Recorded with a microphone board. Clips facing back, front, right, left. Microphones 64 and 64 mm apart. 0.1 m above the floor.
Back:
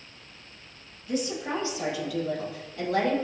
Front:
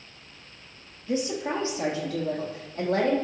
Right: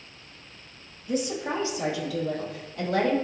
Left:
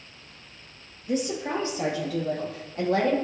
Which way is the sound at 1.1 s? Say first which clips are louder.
Front 2 dB, left 1 dB; 55° left.